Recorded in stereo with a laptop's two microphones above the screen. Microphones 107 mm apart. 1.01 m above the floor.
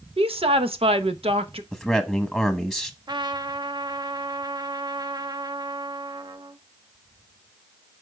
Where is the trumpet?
45° right (ahead or behind), 0.6 m.